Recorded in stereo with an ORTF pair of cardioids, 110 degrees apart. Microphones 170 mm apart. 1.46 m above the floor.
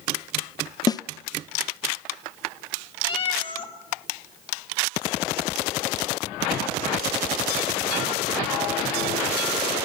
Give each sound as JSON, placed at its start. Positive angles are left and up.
{"t": 0.9, "sound": "a snare drum", "azimuth_deg": 25, "distance_m": 0.6}
{"t": 3.0, "sound": "a cat meowing", "azimuth_deg": 30, "distance_m": 2.0}